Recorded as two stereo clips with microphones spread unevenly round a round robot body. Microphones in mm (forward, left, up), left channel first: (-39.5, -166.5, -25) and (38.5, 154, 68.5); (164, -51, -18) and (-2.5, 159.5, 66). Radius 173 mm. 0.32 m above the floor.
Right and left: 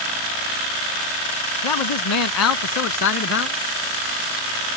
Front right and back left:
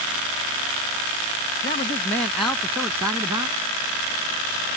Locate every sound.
1.6 s a man speaking: 120° right; by 3.6 s 155° right